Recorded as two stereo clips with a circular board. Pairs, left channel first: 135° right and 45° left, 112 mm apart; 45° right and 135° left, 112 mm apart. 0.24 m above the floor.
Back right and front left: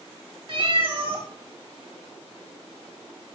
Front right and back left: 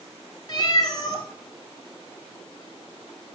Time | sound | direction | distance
0.5 | a cat meowing | 5° left | 1.4 m